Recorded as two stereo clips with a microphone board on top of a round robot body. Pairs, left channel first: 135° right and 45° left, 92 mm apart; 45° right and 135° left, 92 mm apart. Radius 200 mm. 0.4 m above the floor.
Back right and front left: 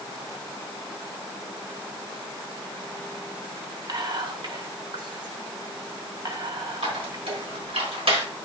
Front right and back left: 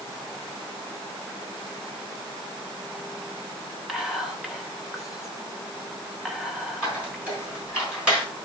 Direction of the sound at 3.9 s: 50° left.